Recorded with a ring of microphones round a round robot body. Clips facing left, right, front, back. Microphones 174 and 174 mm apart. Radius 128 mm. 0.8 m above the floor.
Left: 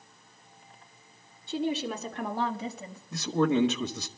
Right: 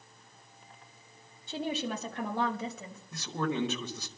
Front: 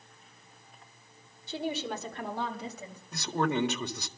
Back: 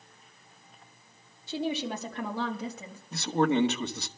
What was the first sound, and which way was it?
A woman speaking, 150° right.